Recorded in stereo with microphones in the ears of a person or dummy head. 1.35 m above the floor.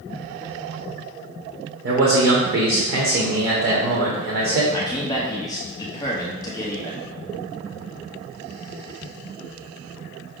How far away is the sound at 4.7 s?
About 0.8 m.